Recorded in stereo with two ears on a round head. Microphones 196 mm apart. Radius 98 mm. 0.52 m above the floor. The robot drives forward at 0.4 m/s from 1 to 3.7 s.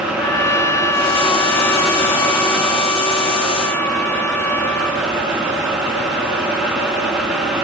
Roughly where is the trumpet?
Centre.